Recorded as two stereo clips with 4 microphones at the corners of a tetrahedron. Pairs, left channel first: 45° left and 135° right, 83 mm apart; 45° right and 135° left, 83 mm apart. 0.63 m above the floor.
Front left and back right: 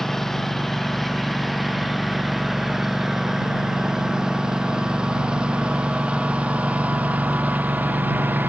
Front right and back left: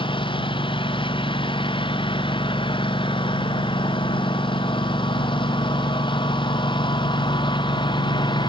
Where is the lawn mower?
40° right; by 8.5 s 65° right.